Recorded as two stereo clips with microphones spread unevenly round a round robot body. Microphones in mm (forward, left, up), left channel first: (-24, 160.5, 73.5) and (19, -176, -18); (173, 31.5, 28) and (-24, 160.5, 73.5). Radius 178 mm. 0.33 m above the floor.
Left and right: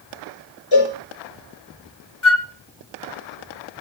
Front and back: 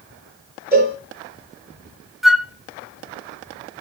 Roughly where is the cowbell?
Left.